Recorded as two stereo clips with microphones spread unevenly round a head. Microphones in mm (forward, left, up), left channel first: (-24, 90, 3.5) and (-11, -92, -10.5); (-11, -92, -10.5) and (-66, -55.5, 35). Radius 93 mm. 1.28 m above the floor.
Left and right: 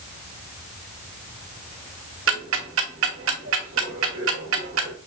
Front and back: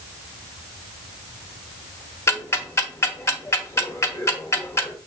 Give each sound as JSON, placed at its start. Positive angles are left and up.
{"t": 2.3, "sound": "ticking", "azimuth_deg": -95, "distance_m": 1.2}